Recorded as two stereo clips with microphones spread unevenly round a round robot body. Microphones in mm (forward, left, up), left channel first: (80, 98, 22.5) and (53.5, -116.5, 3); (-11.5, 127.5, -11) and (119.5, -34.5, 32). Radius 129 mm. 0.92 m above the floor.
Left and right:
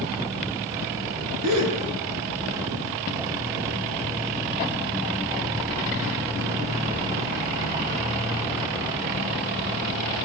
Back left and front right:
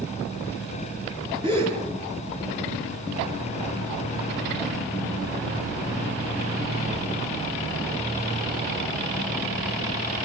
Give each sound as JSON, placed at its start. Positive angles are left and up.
{"t": 1.4, "sound": "a gasp", "azimuth_deg": -125, "distance_m": 7.5}